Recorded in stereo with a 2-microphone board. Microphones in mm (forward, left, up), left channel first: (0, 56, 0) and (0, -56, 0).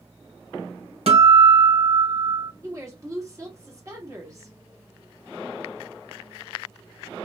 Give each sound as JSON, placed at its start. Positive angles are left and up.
{"t": 1.1, "sound": "a guitar", "side_deg": -60, "distance_m": 1.5}
{"t": 2.6, "sound": "a woman speaking", "side_deg": -30, "distance_m": 1.3}